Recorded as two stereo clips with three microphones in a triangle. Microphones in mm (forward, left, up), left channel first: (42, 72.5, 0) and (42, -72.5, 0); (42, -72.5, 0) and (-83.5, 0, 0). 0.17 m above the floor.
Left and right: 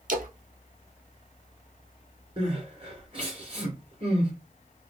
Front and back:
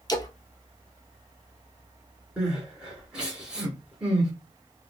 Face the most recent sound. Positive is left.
turn(degrees=-130)